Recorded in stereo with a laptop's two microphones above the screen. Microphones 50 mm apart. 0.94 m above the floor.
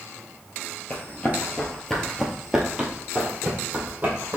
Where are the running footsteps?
40° left (ahead or behind), 1.1 m; by 4.4 s 35° right (ahead or behind), 1.7 m.